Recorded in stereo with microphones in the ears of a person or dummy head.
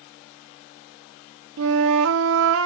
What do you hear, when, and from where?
1.6 s a flute: 75° right (ahead or behind), 0.7 m